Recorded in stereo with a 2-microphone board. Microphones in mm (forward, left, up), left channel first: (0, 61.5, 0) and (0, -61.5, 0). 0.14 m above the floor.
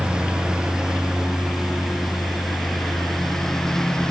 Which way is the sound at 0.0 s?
5° right (ahead or behind).